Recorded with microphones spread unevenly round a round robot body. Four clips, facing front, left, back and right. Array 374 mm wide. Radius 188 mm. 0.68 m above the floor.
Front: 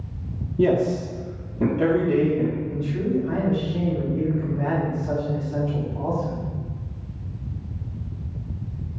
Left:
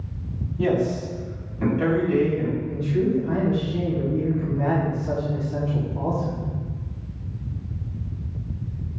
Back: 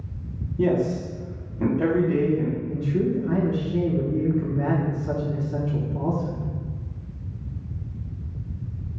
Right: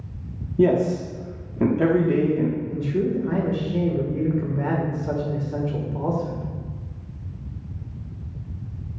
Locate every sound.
0.6 s a man speaking: 60° right, 1.4 m
2.7 s a man speaking: 135° right, 1.8 m